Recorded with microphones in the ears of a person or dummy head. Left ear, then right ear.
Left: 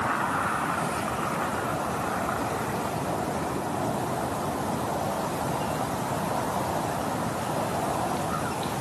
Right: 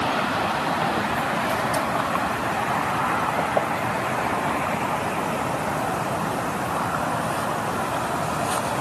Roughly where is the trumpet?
I don't hear a trumpet.